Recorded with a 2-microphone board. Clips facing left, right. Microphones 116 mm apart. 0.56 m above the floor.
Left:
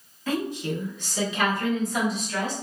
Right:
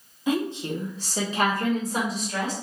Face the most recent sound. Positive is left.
turn(degrees=-35)  # may be behind; listen again after turning